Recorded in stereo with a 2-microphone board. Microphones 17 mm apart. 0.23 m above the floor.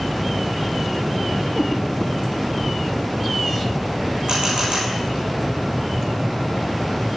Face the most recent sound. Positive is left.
turn(degrees=-85)